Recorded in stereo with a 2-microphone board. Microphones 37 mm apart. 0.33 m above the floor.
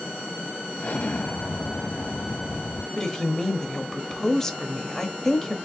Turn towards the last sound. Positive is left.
turn(degrees=15)  # may be behind; listen again after turning